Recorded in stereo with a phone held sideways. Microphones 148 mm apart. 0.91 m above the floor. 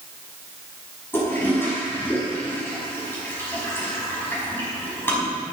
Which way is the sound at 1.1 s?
15° left (ahead or behind).